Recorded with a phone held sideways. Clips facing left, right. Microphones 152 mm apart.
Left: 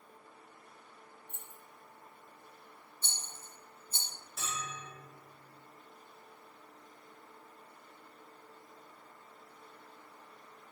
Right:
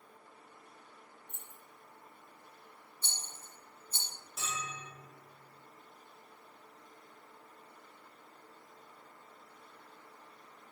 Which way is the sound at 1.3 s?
10° left (ahead or behind).